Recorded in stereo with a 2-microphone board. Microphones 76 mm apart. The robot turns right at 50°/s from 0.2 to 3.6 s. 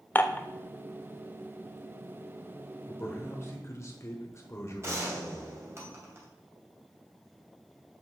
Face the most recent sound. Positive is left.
turn(degrees=-35)  # may be behind; listen again after turning